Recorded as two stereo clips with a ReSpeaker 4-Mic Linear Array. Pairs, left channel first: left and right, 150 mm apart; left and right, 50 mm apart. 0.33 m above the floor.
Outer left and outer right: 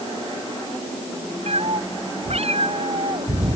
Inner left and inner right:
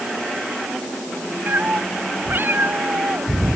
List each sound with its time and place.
1.5 s a cat meowing: 45° right (ahead or behind)